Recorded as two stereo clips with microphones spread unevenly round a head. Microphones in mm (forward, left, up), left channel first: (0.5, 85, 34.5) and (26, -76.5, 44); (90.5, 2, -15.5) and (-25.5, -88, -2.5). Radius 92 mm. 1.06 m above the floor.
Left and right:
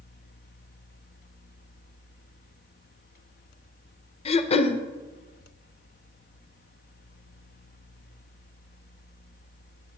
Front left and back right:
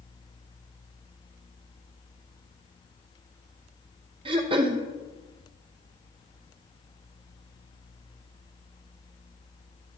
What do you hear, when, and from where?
4.2 s throat clearing: 150° left, 0.5 m